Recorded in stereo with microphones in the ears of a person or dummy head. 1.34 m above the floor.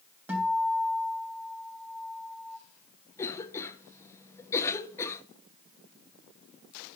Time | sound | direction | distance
0.3 | a guitar | 15° right (ahead or behind) | 3.5 m
3.2 | a cough | 20° left (ahead or behind) | 1.0 m